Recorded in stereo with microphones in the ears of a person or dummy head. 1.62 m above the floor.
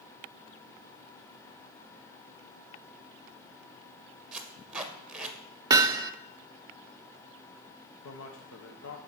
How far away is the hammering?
About 0.6 m.